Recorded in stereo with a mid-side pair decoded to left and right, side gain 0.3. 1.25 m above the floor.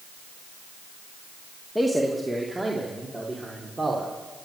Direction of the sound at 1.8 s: 10° right.